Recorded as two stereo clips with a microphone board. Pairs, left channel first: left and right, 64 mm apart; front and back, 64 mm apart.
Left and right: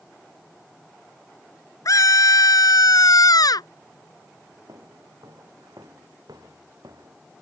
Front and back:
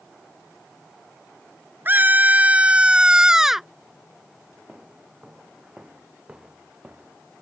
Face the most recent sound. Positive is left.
turn(degrees=-100)